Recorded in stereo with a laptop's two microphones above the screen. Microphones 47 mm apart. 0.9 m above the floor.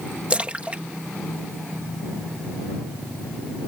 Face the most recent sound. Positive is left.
turn(degrees=-25)  # may be behind; listen again after turning